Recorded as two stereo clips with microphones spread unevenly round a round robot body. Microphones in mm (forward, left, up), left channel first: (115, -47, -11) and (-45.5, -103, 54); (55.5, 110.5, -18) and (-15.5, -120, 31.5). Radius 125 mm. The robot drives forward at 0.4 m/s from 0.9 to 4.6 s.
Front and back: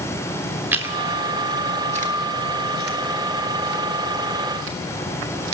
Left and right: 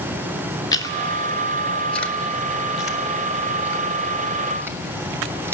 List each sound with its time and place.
0.7 s chewing: 90° left, 0.8 m; by 5.5 s 165° left, 1.7 m